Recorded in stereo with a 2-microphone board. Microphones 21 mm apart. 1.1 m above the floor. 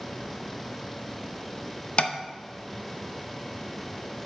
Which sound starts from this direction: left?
Tapping, at 2.0 s.